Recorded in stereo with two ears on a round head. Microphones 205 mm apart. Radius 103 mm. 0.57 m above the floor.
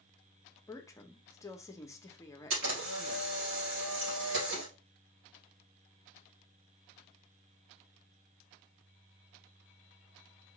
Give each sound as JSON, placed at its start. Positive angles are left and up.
{"t": 0.7, "sound": "a woman speaking", "side_deg": 15, "distance_m": 0.6}
{"t": 2.5, "sound": "a camera shutter", "side_deg": -65, "distance_m": 3.0}